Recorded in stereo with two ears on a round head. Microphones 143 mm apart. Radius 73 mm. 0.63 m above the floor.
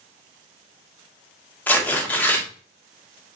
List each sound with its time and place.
1.7 s tearing paper: 10° left (ahead or behind), 1.6 m